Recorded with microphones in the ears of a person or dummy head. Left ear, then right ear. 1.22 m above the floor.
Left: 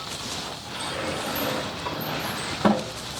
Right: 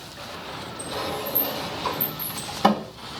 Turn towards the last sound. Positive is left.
turn(degrees=-45)  # may be behind; listen again after turning